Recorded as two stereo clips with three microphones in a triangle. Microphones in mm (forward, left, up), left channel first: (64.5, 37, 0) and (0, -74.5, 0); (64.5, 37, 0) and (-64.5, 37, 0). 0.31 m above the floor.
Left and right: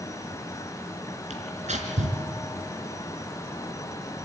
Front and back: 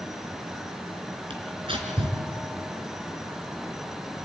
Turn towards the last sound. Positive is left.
turn(degrees=-135)